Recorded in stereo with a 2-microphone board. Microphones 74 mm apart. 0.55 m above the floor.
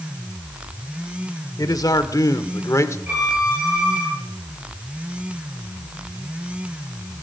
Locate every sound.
1.6 s a man speaking: 60° left (ahead or behind), 1.4 m; by 3.0 s 45° left (ahead or behind), 1.3 m
3.1 s a violin: 20° right (ahead or behind), 8.5 m